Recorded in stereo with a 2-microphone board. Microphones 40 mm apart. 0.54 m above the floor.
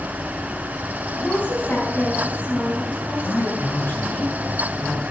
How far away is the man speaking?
About 5.5 m.